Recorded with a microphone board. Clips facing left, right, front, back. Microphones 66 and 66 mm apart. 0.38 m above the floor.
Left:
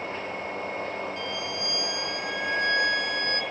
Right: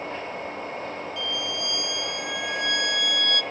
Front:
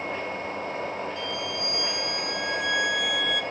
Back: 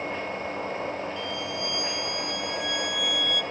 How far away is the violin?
About 0.9 m.